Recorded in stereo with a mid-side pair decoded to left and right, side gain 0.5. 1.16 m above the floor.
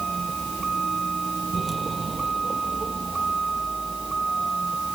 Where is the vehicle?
30° right; by 5.0 s 25° right.